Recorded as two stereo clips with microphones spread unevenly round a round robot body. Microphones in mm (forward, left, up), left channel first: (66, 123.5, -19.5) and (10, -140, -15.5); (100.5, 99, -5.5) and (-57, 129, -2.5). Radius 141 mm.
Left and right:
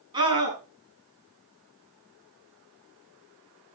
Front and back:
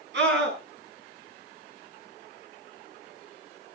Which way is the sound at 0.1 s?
175° right.